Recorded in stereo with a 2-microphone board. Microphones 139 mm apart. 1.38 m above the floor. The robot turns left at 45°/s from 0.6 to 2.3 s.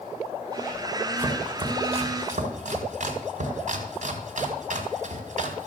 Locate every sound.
1.2 s chopping: 20° right (ahead or behind), 2 m; by 5.7 s 60° right (ahead or behind), 2 m